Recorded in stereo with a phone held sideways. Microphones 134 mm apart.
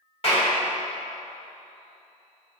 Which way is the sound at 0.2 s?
45° left (ahead or behind).